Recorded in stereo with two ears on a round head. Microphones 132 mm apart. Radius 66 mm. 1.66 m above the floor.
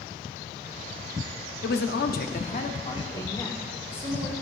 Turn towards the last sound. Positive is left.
turn(degrees=15)  # may be behind; listen again after turning